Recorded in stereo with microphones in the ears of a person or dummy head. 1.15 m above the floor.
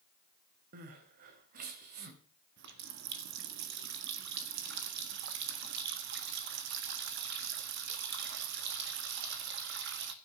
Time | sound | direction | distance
0.7 | crying | 50° right (ahead or behind) | 1.7 m
2.6 | a running tap | 65° right (ahead or behind) | 1.4 m